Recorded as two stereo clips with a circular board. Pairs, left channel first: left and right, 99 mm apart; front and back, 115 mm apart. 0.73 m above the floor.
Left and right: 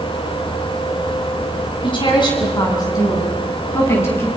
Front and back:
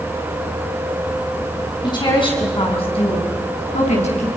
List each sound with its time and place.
1.8 s a woman speaking: 50° left, 7 m; by 4.3 s 20° left, 6.5 m